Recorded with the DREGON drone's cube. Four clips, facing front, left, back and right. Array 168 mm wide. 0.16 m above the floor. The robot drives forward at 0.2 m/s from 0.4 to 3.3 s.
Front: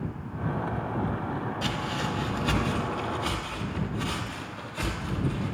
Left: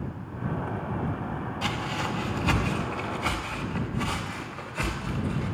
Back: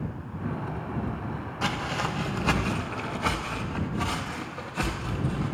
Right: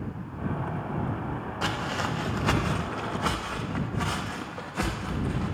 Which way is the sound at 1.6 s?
135° right.